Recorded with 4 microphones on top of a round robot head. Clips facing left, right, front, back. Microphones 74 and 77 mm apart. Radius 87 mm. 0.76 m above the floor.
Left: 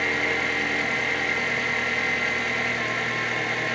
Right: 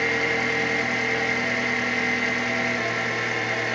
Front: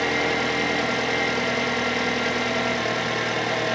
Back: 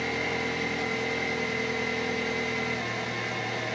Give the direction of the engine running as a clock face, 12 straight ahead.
12 o'clock.